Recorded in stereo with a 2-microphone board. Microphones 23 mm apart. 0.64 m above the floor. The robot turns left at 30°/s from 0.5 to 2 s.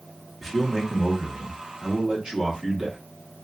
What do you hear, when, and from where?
0.4 s a man speaking: 5° right, 1.0 m; by 3.0 s 50° right, 1.0 m